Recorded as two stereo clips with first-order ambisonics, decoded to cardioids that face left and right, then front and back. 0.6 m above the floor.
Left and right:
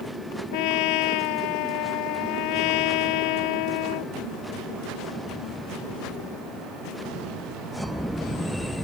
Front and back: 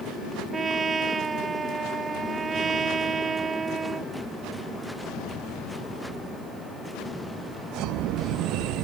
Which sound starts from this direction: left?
A trumpet, at 0.5 s.